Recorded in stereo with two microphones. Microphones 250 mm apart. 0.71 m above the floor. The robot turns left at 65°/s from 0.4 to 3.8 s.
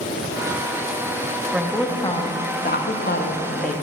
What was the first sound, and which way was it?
A woman speaking, 170° right.